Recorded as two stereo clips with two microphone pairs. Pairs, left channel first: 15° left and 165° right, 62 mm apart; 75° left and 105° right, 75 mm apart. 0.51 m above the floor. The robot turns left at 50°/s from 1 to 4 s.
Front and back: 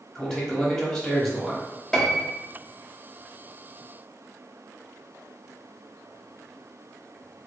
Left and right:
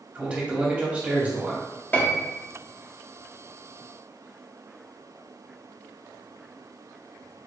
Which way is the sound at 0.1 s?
50° right.